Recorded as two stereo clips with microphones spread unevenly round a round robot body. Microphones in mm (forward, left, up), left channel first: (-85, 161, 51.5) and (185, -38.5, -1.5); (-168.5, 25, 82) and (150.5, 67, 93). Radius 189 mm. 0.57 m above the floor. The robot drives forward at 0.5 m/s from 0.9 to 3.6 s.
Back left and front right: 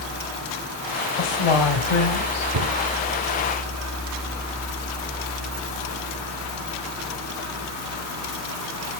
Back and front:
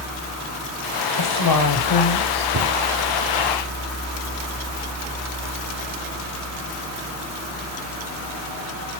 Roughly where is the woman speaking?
Behind.